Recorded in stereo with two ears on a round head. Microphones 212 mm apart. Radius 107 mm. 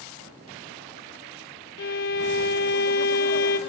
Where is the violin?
40° left (ahead or behind), 1.1 m.